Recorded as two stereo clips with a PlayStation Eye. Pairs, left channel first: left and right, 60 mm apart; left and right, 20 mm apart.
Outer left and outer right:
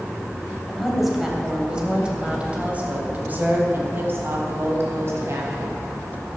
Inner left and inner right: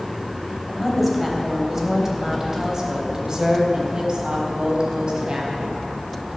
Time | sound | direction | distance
0.7 | a woman speaking | centre (ahead or behind) | 3.5 m